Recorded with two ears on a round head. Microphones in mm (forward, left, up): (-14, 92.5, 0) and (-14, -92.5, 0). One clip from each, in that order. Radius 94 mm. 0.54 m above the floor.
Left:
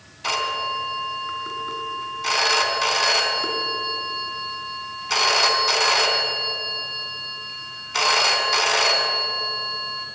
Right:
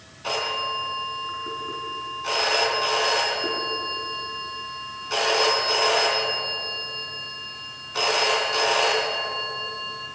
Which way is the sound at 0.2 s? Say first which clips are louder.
Left 2 dB; 65° left (ahead or behind).